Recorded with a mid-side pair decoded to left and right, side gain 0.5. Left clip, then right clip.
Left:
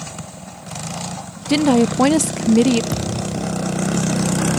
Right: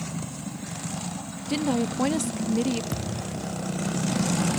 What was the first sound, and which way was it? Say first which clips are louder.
A woman speaking: left 11 dB; 60° left.